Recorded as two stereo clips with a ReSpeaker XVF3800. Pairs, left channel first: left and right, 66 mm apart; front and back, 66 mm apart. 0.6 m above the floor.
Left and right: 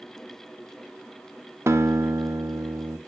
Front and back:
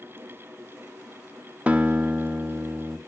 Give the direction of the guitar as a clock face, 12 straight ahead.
4 o'clock.